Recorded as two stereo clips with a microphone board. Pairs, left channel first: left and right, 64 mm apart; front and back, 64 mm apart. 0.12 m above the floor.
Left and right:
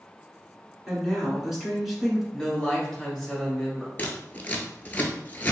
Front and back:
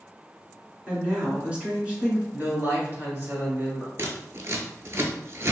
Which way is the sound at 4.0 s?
145° left.